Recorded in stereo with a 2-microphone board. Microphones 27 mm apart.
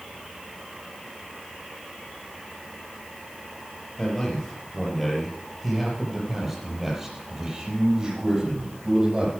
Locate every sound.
4.0 s a man speaking: 15° left (ahead or behind), 5.5 m; by 9.3 s 40° right (ahead or behind), 7.5 m